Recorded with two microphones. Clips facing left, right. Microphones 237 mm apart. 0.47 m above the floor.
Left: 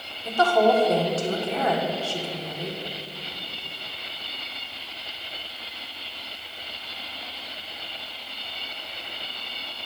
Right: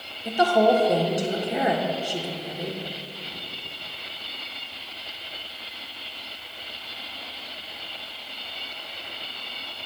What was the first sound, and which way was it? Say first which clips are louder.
A woman speaking: right 1 dB; 15° right (ahead or behind).